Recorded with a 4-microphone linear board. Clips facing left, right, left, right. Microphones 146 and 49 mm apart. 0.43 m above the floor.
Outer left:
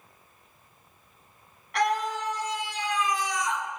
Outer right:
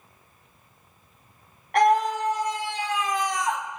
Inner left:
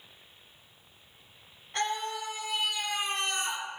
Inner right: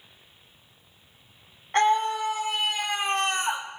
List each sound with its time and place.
1.7 s a scream: 55° right (ahead or behind), 3.5 m